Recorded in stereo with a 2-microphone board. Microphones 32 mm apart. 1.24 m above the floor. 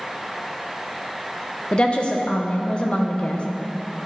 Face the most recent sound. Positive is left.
turn(degrees=35)  # may be behind; listen again after turning